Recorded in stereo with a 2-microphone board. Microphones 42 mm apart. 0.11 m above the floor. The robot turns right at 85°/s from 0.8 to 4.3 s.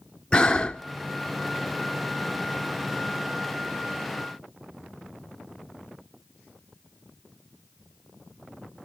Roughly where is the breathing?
Left.